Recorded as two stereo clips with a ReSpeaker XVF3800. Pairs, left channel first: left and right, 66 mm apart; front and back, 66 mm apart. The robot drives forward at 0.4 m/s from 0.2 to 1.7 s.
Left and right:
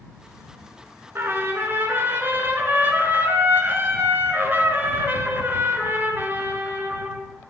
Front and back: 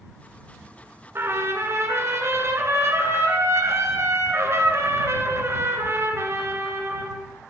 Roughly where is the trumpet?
Behind right.